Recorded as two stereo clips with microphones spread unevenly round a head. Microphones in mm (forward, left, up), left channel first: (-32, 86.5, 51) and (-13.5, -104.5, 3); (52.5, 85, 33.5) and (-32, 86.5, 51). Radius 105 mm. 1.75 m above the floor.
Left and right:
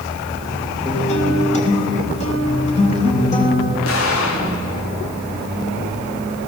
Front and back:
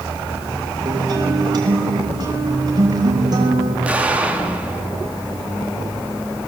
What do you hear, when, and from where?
0.8 s a guitar: 145° left, 4.5 m
3.9 s an explosion: 105° left, 4 m